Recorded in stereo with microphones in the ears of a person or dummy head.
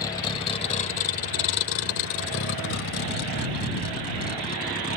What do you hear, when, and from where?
0.0 s a vehicle: 20° left (ahead or behind); by 5.0 s 40° left (ahead or behind)